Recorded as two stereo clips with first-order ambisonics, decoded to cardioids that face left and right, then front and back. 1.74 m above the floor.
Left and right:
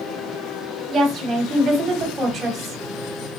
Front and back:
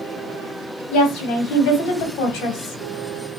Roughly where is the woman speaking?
Ahead.